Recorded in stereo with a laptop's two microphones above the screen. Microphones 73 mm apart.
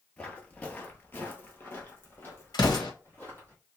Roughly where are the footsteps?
Centre.